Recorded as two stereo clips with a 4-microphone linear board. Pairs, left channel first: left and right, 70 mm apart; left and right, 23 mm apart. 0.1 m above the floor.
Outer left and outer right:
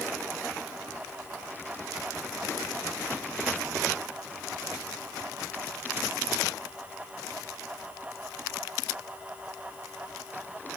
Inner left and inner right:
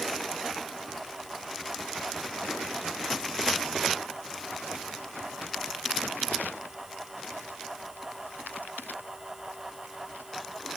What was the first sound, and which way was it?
Only background noise.